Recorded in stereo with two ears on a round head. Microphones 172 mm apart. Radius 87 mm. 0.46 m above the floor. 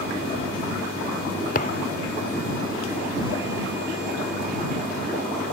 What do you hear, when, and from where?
1.6 s a thud: 40° left (ahead or behind)